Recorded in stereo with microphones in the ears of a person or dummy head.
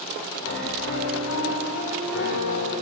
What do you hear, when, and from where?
0.4 s a piano: 80° left, 6.5 m